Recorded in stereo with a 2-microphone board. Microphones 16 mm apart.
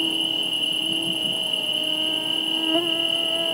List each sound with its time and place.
0.0 s an insect: 25° right (ahead or behind)